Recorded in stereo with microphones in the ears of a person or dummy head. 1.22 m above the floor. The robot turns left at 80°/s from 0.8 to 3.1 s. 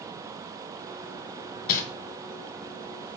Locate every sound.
1.7 s crumpling: 55° left (ahead or behind), 2.5 m; by 1.8 s 45° left (ahead or behind), 2.5 m